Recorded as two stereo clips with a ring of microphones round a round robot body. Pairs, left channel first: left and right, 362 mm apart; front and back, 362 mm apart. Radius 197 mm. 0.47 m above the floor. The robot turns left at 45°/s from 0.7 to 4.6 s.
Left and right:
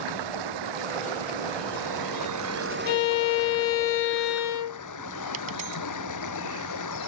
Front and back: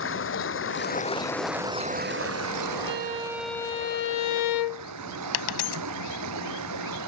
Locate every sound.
0.0 s running water: 55° right; by 7.1 s 130° left
2.9 s a violin: 115° left; by 4.9 s 40° left
5.3 s a dropped coin: 20° right